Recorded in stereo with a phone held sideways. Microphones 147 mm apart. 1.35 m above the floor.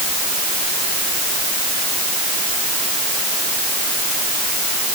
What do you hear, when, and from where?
Only background noise.